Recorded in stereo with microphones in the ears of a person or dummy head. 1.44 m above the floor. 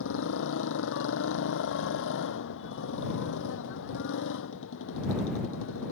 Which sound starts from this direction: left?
A motorcycle, at 0.0 s.